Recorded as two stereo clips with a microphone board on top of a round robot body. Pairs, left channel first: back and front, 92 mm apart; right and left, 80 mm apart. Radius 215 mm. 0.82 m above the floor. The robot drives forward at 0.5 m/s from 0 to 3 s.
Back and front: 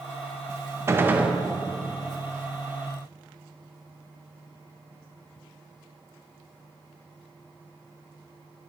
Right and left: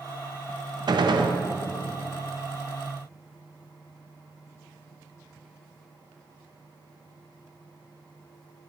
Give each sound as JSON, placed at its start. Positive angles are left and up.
{"t": 0.9, "sound": "a gunshot", "azimuth_deg": 60, "distance_m": 0.7}